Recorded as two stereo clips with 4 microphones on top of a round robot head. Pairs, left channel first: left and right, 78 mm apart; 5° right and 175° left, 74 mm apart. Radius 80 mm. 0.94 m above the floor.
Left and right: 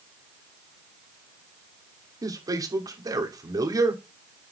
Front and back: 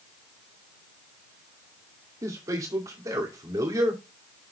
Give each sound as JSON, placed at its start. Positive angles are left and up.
{"t": 2.2, "sound": "a man speaking", "azimuth_deg": -130, "distance_m": 2.5}